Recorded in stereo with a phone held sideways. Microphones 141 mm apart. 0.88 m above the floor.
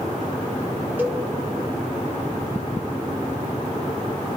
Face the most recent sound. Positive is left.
turn(degrees=-10)  # may be behind; listen again after turning